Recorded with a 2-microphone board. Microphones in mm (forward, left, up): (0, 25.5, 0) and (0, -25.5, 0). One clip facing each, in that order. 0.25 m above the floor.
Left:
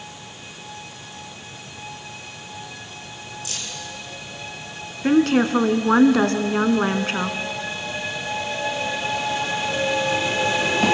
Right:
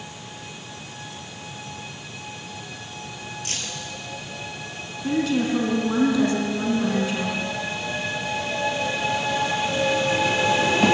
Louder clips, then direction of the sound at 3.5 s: Right 2 dB; 45° right (ahead or behind).